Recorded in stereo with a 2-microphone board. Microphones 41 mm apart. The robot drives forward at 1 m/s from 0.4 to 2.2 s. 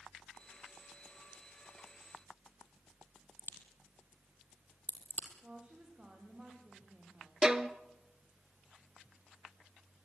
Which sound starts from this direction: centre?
A violin, at 7.4 s.